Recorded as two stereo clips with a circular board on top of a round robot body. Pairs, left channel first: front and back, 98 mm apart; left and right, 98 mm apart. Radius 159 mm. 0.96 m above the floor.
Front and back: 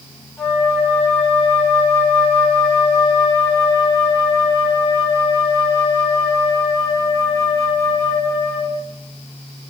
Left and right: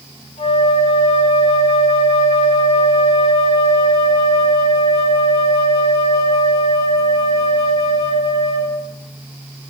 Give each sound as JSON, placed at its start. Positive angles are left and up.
{"t": 0.4, "sound": "a flute", "azimuth_deg": 80, "distance_m": 6.5}